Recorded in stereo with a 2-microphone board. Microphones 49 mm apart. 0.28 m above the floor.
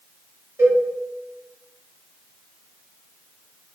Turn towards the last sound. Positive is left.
turn(degrees=-60)  # may be behind; listen again after turning